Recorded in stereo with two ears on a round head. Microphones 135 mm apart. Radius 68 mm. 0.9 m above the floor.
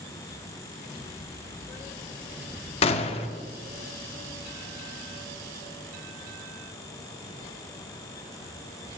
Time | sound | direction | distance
2.8 | a gunshot | 40° left (ahead or behind) | 0.6 m